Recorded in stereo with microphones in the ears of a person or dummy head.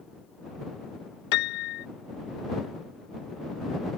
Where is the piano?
55° left (ahead or behind).